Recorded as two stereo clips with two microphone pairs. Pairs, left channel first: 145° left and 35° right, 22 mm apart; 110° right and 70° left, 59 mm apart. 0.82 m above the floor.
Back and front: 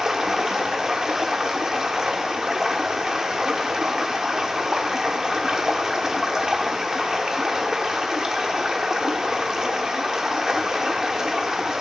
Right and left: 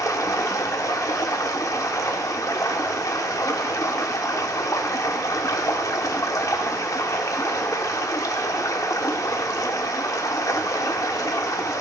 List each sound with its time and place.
0.0 s running water: 90° right, 0.9 m